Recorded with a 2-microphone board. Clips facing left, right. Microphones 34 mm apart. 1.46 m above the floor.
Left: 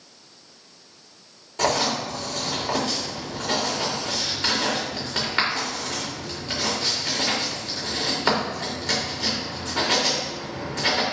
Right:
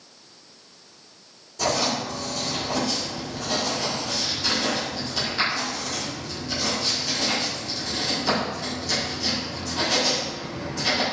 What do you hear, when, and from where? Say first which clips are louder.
1.6 s writing: left 2 dB; 50° left (ahead or behind), 3 m